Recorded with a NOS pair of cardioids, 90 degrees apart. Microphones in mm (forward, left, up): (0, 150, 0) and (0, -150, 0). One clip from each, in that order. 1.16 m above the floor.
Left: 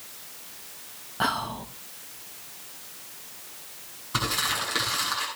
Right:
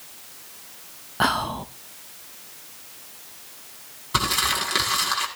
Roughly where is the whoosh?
No whoosh in this recording.